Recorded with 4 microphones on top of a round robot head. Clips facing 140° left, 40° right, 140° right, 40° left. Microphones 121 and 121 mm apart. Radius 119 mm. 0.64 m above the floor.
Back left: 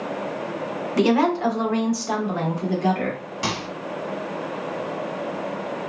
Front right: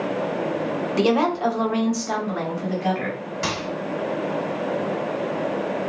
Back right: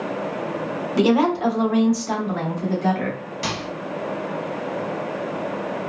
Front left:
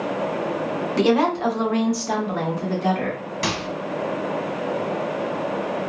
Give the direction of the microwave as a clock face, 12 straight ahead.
10 o'clock.